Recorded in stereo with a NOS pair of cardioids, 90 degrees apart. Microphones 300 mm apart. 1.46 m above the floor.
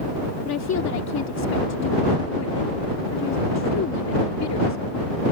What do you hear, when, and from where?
0.5 s a woman speaking: 60° left